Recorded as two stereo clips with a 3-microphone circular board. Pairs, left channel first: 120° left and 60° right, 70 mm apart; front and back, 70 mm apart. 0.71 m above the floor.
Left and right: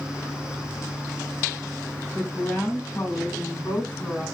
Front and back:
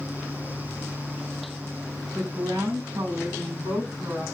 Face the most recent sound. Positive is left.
turn(degrees=-170)